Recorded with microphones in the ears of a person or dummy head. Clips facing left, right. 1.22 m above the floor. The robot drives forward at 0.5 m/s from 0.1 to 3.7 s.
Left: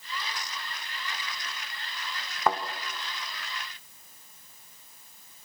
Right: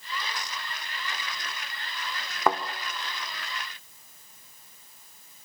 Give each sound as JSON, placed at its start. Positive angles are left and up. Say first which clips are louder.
{"t": 2.5, "sound": "a thud", "louder": "right 2 dB", "side_deg": -65, "distance_m": 1.5}